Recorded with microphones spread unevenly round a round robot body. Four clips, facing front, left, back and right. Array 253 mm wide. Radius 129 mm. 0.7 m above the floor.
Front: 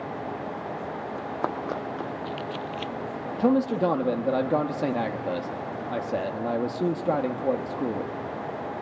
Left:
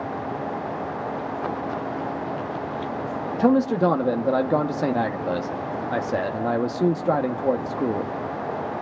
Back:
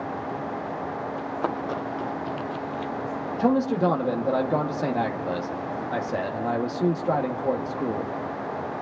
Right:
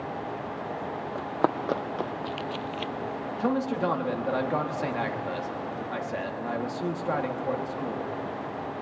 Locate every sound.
1.1 s running footsteps: 95° right, 2.5 m; by 2.9 s 40° right, 1.1 m
3.4 s a man speaking: 75° left, 0.9 m